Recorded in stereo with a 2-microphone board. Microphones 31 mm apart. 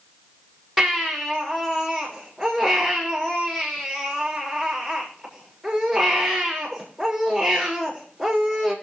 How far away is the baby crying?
About 5 m.